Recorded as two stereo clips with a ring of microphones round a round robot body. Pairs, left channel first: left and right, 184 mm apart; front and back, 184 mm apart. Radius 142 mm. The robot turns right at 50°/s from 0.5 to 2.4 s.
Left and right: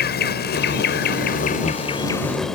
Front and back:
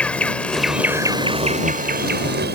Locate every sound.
0.0 s an insect: 85° left; by 2.5 s straight behind